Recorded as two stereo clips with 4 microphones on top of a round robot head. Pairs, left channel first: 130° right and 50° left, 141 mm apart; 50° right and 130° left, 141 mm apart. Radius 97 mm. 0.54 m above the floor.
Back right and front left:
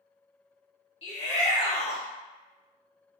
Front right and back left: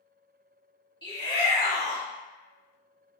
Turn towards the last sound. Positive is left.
turn(degrees=-100)